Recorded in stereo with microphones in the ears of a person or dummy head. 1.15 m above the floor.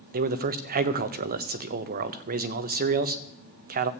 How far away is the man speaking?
About 0.8 m.